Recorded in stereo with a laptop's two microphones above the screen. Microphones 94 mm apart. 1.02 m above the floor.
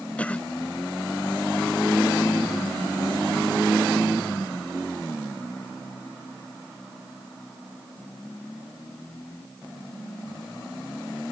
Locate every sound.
0.2 s a cough: 15° left (ahead or behind)